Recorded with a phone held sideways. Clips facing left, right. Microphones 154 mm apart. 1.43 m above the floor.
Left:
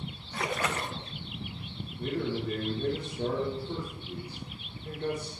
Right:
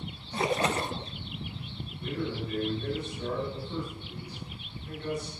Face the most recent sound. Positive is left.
turn(degrees=70)  # may be behind; listen again after turning